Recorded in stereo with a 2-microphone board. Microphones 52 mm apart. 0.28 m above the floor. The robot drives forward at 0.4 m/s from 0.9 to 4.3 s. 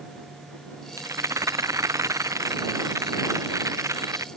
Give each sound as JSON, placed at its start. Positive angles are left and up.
{"t": 1.0, "sound": "a rattle", "side_deg": -85}